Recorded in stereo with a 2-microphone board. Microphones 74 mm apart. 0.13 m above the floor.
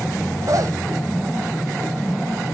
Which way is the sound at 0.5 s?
50° right (ahead or behind).